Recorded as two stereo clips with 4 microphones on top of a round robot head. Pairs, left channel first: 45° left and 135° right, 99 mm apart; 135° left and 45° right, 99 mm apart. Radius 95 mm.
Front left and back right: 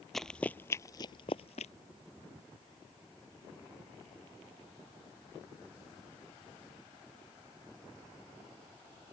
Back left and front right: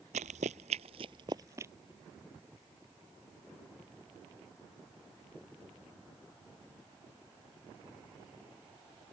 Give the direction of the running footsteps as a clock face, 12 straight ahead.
1 o'clock.